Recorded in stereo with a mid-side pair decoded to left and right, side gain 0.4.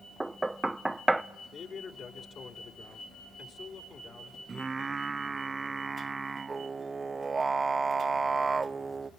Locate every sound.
0.2 s knocking: 15° right, 0.6 m
1.5 s a man speaking: 60° left, 4 m
4.5 s singing: 35° right, 0.5 m